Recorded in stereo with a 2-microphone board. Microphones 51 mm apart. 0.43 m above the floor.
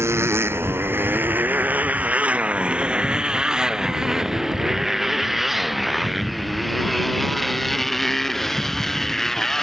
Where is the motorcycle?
60° right (ahead or behind); by 9.6 s 5° left (ahead or behind).